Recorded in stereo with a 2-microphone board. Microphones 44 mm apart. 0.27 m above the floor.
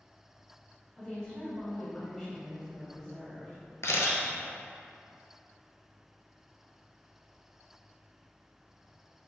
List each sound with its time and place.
1.0 s a woman speaking: 10° left (ahead or behind), 1.6 m
3.8 s a camera shutter: 75° left (ahead or behind), 0.7 m